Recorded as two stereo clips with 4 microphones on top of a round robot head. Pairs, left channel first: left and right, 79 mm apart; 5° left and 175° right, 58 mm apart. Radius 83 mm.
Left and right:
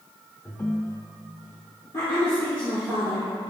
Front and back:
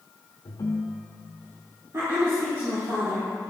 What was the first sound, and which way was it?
A ringtone, 20° left.